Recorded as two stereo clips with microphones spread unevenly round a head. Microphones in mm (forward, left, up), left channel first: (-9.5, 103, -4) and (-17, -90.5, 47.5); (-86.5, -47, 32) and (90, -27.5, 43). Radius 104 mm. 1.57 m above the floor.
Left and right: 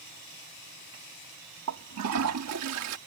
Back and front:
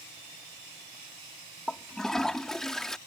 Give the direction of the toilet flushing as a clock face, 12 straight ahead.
3 o'clock.